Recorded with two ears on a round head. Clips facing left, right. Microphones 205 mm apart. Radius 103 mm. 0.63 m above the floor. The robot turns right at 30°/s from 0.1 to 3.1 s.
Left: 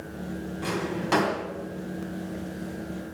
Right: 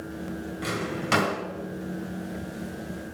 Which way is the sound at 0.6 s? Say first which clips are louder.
Left 2 dB; 25° right (ahead or behind).